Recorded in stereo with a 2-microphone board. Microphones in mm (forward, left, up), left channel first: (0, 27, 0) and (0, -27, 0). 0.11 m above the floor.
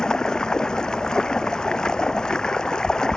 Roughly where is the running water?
Centre.